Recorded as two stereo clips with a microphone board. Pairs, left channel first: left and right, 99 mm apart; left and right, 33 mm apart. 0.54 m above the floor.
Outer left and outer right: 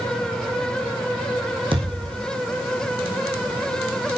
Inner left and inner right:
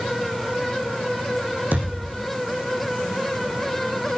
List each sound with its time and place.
1.7 s a thud: 60° right (ahead or behind), 5.5 m